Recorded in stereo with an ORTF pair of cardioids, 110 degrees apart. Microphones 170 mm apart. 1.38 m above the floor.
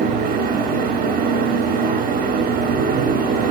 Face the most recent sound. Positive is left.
turn(degrees=-65)